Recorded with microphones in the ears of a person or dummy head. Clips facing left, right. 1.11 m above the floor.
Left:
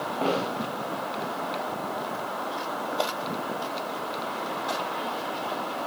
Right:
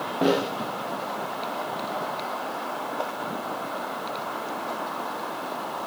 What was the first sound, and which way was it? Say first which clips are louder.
A snare drum: right 5 dB; 15° right (ahead or behind).